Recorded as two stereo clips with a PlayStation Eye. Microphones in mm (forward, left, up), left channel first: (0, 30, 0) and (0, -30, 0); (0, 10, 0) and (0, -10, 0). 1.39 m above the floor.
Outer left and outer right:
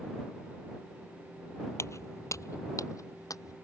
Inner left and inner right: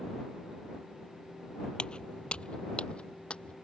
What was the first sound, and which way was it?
Footsteps, 55° left (ahead or behind).